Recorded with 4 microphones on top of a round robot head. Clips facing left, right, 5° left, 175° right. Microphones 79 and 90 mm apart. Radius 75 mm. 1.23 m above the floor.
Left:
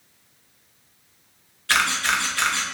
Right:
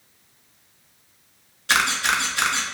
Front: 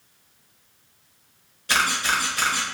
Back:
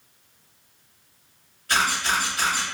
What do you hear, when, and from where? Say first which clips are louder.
1.7 s a camera shutter: right 1 dB, even; 20° right, 0.7 m